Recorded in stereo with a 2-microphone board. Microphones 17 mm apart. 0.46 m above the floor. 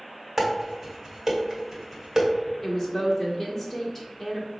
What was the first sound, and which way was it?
Dishes clattering, 25° right (ahead or behind).